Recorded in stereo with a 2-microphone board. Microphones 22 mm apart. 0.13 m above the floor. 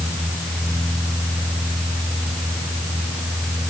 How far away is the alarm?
I don't hear an alarm.